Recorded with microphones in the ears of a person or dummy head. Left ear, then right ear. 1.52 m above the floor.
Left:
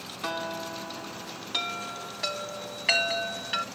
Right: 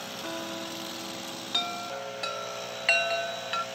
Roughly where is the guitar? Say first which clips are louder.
Left 6 dB; left.